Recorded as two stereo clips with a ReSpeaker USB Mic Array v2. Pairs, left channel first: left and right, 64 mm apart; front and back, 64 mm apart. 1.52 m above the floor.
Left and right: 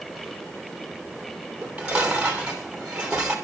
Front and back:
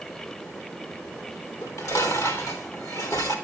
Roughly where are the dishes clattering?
Ahead.